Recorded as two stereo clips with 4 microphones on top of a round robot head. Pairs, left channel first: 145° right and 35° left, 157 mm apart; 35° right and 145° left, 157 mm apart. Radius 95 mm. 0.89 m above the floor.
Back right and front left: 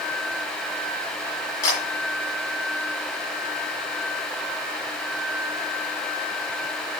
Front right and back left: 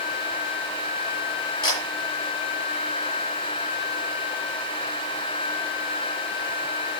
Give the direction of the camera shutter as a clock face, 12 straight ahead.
3 o'clock.